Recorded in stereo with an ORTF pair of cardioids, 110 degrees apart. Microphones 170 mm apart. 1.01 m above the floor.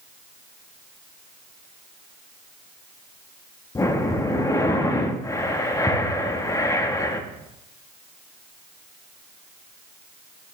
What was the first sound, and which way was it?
Breathing, 20° left.